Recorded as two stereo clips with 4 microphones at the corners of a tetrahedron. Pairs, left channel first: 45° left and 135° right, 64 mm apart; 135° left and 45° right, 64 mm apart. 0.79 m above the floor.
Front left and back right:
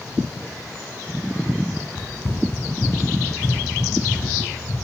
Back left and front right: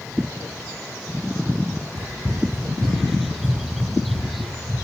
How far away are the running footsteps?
About 1.0 m.